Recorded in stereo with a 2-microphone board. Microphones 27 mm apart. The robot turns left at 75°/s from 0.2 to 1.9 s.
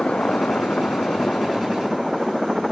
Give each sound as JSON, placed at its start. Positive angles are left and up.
{"t": 0.0, "sound": "a helicopter", "azimuth_deg": 125}